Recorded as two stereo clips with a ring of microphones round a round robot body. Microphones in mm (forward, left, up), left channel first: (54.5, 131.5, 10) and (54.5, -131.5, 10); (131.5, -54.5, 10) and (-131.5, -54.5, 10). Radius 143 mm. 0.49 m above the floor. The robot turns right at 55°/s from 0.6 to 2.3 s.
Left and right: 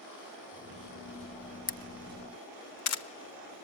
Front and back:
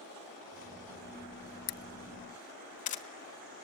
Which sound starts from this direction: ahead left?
A camera shutter, at 1.7 s.